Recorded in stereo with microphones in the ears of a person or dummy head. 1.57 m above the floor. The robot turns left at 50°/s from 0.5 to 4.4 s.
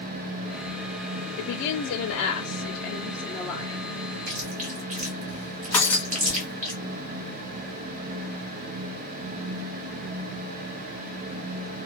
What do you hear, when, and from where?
1.4 s a woman speaking: 110° left, 0.5 m; by 3.8 s 10° right, 0.5 m
4.3 s chewing: 50° right (ahead or behind), 0.7 m; by 6.7 s 45° right (ahead or behind), 0.7 m
5.7 s breaking glass: 15° left (ahead or behind), 1.3 m